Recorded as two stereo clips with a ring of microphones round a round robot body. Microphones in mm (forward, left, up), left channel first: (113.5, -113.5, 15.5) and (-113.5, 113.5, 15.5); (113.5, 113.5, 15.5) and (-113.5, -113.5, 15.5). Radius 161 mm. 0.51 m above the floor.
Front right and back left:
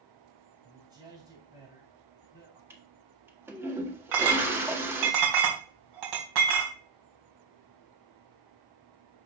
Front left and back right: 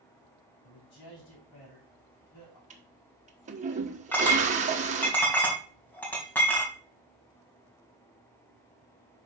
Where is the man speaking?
55° left, 5 m.